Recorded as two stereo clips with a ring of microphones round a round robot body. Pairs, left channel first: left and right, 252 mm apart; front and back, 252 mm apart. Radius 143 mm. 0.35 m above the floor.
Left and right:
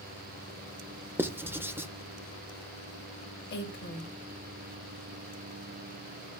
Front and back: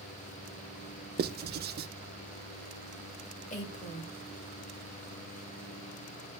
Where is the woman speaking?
50° left, 2 m.